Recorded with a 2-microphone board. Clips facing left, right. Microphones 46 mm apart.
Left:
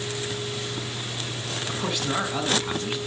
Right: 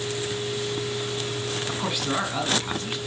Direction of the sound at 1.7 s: 10° right (ahead or behind).